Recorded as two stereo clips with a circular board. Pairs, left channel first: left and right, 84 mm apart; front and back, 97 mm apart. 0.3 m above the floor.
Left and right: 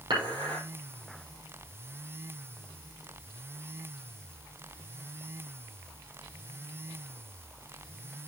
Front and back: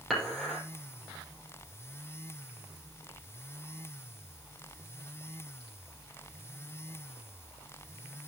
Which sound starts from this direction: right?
Dishes clattering, at 0.1 s.